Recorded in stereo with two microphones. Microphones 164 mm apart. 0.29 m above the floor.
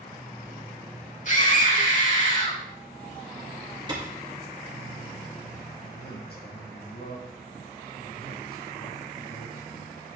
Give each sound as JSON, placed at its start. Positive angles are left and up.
{"t": 1.2, "sound": "a scream", "side_deg": 55, "distance_m": 2.5}
{"t": 3.9, "sound": "a clap", "side_deg": -30, "distance_m": 4.0}
{"t": 5.8, "sound": "a man speaking", "side_deg": 80, "distance_m": 5.0}